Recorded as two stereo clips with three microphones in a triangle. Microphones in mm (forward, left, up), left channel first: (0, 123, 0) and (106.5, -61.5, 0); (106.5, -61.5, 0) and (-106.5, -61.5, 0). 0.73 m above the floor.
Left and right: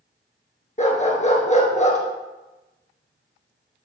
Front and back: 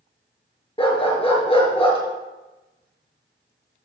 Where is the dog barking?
65° left, 2.5 m.